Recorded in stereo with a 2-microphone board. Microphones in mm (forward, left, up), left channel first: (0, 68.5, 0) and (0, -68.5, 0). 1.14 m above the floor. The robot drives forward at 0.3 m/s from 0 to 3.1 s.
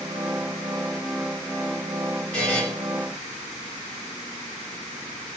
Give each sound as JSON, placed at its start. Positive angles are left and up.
{"t": 2.3, "sound": "a buzzer", "side_deg": 5, "distance_m": 1.8}